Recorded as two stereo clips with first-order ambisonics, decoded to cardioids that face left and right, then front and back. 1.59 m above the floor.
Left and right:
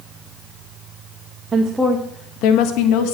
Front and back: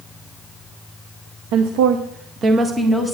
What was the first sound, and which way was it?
A woman speaking, 165° right.